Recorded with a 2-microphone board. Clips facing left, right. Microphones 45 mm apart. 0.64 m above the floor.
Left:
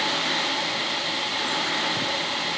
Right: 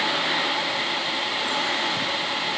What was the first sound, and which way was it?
Only background noise.